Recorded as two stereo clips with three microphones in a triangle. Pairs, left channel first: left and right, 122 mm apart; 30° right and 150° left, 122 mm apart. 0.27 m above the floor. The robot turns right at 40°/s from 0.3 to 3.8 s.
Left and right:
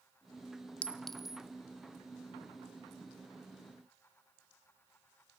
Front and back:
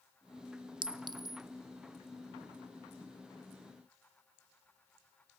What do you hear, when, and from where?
0.8 s a clink: 165° left, 0.8 m; by 1.4 s 170° right, 0.8 m